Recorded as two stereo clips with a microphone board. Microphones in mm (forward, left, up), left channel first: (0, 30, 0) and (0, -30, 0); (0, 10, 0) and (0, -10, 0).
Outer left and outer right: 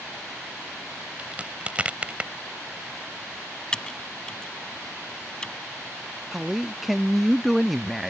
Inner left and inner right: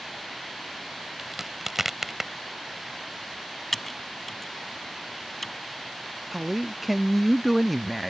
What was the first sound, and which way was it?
A crack, 20° right (ahead or behind).